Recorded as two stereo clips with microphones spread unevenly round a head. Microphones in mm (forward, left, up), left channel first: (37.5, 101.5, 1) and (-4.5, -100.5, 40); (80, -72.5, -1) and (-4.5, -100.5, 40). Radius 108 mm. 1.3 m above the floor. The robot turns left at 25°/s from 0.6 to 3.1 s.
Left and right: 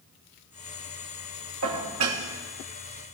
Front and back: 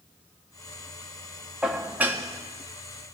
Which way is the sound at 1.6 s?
85° right.